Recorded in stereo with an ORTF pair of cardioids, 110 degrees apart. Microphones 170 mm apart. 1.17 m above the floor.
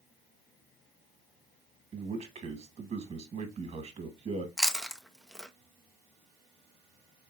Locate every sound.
1.9 s a man speaking: 40° right, 1.7 m
4.6 s chewing: straight ahead, 0.7 m